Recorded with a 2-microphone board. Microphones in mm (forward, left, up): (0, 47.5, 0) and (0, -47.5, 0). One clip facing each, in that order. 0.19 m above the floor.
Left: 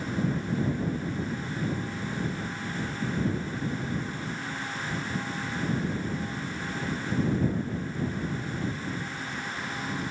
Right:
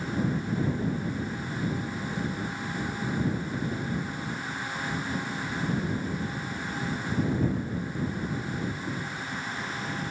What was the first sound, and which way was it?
Only background noise.